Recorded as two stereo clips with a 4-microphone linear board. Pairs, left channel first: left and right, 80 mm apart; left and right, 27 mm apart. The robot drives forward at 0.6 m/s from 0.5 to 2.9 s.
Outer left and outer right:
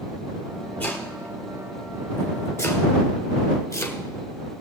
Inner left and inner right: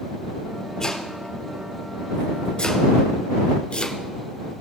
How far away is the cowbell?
I don't hear a cowbell.